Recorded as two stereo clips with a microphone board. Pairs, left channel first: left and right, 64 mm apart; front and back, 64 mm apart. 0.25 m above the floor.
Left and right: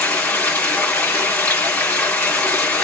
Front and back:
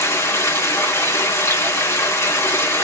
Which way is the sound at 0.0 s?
30° left.